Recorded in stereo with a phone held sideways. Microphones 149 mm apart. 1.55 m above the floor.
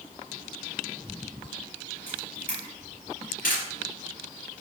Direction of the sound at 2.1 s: 75° left (ahead or behind).